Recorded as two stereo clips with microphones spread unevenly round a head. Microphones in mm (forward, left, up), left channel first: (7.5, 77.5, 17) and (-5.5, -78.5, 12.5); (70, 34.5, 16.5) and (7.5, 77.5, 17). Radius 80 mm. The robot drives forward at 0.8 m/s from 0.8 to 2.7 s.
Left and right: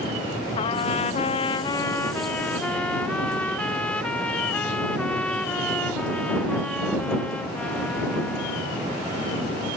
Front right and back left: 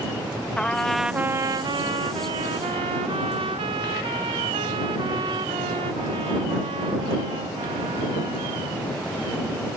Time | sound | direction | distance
0.6 | a trumpet | 40° left | ?